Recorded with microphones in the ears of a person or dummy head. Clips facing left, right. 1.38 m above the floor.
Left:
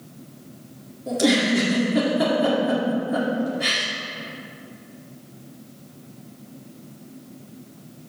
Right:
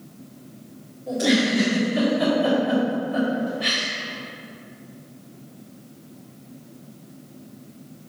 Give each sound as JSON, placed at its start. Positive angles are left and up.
{"t": 1.1, "sound": "a giggle", "side_deg": 60, "distance_m": 2.0}